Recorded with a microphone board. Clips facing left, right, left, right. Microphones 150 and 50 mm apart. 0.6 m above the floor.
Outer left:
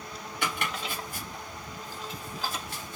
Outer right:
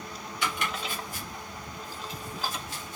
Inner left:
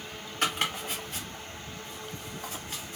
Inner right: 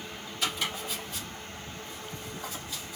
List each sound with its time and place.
0.4 s chopping: 60° left (ahead or behind), 1.9 m